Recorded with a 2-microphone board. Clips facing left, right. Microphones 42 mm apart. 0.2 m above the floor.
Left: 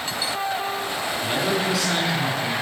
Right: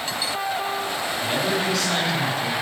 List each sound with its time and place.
1.2 s a man speaking: 5° left (ahead or behind), 1.7 m